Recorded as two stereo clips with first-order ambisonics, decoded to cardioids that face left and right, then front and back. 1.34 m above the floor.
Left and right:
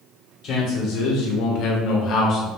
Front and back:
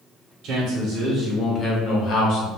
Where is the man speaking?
140° left, 0.7 m; by 2.5 s 35° left, 0.9 m.